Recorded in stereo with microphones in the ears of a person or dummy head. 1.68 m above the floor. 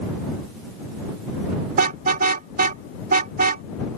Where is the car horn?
55° right (ahead or behind).